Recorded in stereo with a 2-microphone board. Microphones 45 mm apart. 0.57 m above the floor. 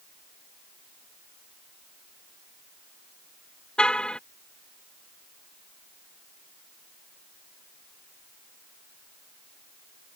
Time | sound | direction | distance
3.8 | a car horn | 20° left (ahead or behind) | ?